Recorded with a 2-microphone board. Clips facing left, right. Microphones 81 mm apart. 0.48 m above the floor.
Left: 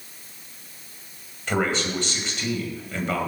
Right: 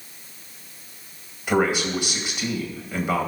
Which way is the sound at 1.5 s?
10° right (ahead or behind).